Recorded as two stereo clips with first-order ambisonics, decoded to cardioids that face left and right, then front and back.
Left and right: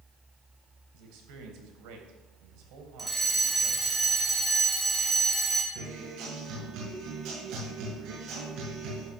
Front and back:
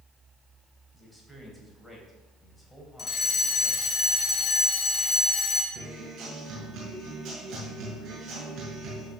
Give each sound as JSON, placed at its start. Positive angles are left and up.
{"t": 0.9, "sound": "a man speaking", "azimuth_deg": -85, "distance_m": 3.0}
{"t": 3.0, "sound": "a fire alarm", "azimuth_deg": -20, "distance_m": 1.7}
{"t": 5.8, "sound": "a guitar", "azimuth_deg": -125, "distance_m": 6.5}